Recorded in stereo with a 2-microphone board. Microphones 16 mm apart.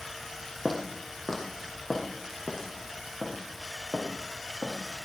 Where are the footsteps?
15° left (ahead or behind), 3 m; by 4.8 s 45° left (ahead or behind), 6.5 m.